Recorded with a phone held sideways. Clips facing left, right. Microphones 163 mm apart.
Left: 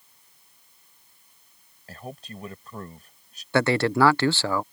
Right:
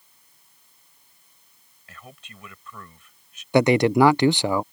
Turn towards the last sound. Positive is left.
turn(degrees=-15)  # may be behind; listen again after turning